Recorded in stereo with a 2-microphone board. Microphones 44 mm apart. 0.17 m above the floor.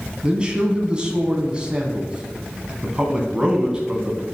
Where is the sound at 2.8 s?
20° right (ahead or behind), 1.1 m.